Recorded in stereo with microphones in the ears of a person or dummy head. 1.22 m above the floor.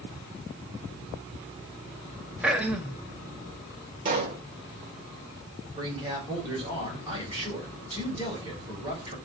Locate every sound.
2.4 s throat clearing: 10° right (ahead or behind), 0.7 m
4.0 s a pop: 30° right (ahead or behind), 1.0 m
5.8 s a man speaking: 25° right (ahead or behind), 4 m